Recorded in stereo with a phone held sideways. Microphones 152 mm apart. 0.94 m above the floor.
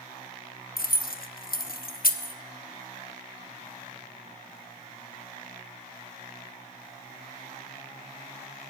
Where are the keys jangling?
75° left (ahead or behind), 0.7 m.